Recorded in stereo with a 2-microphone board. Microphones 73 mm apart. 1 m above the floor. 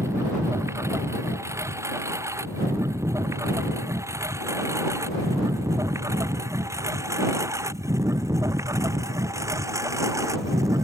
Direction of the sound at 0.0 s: 40° right (ahead or behind).